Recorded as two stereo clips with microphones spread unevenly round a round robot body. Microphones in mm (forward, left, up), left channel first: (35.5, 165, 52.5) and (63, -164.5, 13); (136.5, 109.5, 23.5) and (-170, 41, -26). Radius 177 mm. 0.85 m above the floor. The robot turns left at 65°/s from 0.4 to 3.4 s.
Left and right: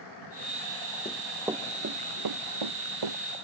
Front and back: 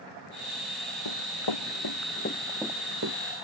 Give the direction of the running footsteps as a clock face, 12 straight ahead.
11 o'clock.